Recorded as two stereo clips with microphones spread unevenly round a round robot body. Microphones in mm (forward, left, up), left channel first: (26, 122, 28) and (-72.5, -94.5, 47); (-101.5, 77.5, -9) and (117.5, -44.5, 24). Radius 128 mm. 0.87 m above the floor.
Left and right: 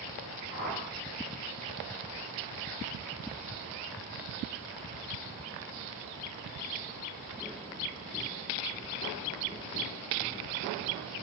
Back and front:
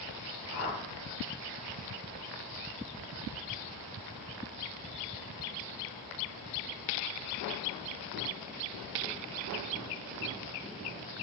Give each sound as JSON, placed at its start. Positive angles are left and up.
{"t": 0.5, "sound": "a whoosh", "azimuth_deg": 45, "distance_m": 0.9}